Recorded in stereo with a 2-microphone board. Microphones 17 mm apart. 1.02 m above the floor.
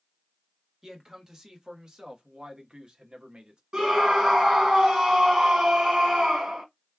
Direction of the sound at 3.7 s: 60° right (ahead or behind).